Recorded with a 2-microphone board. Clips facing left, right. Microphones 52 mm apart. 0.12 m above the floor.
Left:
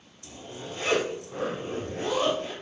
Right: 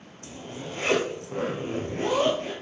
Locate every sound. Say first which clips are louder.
0.2 s a zipper: right 2 dB; 50° right (ahead or behind), 1.2 m